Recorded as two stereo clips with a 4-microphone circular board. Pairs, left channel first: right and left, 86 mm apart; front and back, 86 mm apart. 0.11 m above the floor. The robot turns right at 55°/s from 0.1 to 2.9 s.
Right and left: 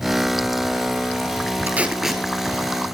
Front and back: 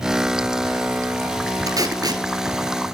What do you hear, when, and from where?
1.7 s tape being pulled: 155° left, 1.1 m; by 2.2 s 175° right, 1.1 m